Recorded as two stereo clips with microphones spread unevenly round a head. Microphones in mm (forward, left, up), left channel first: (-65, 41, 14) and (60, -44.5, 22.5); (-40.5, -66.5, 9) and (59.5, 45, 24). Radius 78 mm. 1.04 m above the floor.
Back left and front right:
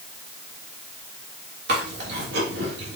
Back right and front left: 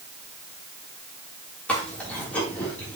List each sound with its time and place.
1.7 s chewing: 50° right, 3 m